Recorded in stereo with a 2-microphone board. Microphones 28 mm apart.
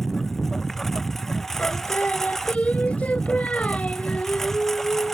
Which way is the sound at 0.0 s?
10° left (ahead or behind).